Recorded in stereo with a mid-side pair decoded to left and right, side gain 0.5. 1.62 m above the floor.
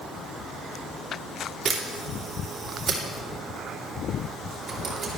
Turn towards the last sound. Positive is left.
turn(degrees=-40)